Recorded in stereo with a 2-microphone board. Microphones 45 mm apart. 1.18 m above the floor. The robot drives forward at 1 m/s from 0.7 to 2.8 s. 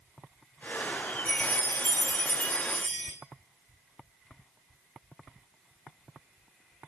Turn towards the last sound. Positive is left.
turn(degrees=20)  # may be behind; listen again after turning